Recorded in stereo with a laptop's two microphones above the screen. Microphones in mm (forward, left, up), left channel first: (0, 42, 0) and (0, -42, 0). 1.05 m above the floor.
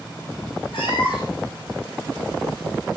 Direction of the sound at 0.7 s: 75° left (ahead or behind).